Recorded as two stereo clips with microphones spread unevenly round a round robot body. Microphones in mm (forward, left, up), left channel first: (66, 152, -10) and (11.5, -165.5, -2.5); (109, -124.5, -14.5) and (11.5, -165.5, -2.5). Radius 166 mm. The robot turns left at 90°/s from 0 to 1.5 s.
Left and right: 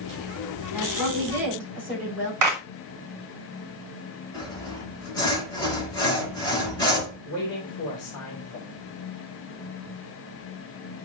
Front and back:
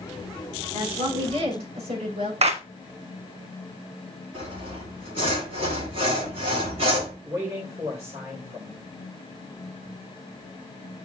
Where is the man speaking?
130° left, 2.5 m.